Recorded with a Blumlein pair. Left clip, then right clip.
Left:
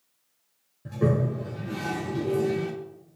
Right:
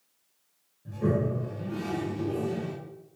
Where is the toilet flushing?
60° left, 0.7 m.